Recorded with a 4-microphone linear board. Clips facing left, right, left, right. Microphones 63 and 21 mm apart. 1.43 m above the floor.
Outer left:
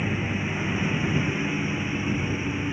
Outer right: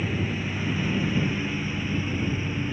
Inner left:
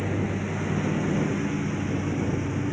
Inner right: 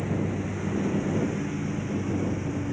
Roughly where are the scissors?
I don't hear scissors.